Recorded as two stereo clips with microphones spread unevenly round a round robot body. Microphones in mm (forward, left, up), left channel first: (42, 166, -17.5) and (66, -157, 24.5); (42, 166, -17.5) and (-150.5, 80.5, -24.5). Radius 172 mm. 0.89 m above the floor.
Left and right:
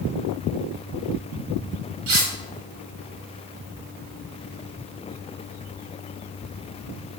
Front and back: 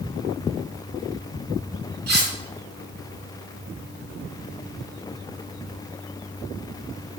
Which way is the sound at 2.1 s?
110° right.